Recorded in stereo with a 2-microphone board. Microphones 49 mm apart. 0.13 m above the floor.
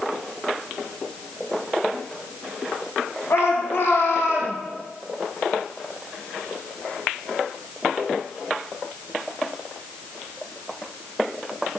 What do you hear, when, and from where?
3.3 s a shout: 65° left (ahead or behind), 5.5 m